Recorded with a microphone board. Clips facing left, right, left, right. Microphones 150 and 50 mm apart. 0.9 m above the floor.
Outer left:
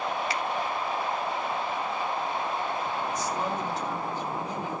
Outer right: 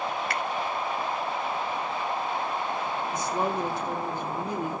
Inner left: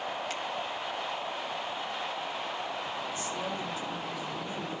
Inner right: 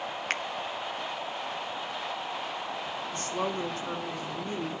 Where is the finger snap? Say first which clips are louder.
Even, inner right 4 dB; 55° right (ahead or behind), 0.9 m.